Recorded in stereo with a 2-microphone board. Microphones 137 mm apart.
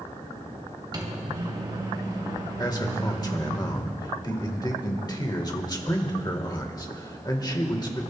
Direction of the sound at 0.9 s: 35° right (ahead or behind).